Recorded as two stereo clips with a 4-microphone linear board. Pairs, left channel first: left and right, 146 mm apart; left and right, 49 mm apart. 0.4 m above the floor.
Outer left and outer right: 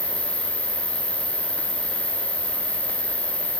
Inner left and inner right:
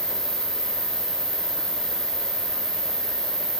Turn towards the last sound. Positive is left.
turn(degrees=20)  # may be behind; listen again after turning